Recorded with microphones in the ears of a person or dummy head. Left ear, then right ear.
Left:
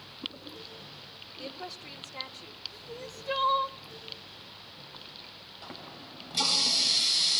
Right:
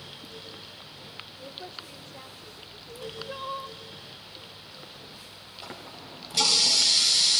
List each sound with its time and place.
1.4 s a woman speaking: 65° left (ahead or behind), 3.5 m
2.9 s crying: 75° left (ahead or behind), 0.8 m
5.6 s a running tap: 10° right (ahead or behind), 5 m